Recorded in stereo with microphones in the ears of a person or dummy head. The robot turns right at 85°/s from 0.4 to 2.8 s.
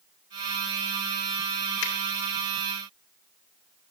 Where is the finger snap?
75° left (ahead or behind), 1.9 m.